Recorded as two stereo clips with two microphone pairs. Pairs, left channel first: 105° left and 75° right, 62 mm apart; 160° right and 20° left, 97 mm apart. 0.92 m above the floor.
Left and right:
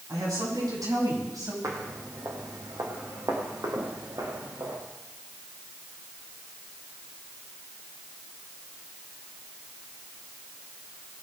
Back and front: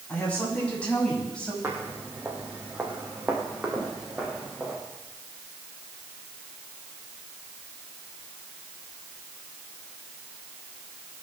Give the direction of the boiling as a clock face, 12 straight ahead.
I don't hear boiling.